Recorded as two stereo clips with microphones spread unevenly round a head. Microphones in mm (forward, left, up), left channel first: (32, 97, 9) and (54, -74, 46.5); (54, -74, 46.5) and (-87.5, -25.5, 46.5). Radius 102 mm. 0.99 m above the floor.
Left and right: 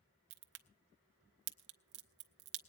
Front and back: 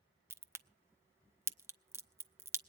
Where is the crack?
125° right, 0.9 m.